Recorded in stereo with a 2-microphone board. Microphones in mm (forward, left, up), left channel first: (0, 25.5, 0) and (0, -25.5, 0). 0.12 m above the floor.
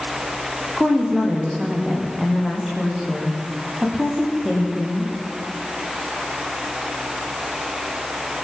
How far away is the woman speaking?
About 8.5 m.